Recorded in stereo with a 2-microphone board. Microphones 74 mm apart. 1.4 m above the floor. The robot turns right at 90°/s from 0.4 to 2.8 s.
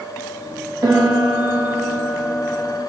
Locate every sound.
0.8 s a piano: 120° right, 1.2 m; by 2.8 s 55° left, 1.2 m